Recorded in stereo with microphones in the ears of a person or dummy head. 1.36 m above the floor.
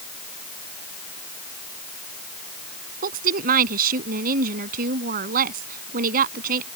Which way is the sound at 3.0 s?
55° right (ahead or behind).